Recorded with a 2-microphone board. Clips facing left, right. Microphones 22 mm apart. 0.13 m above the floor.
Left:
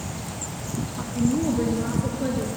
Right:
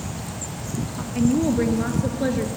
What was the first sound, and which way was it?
A woman speaking, 55° right (ahead or behind).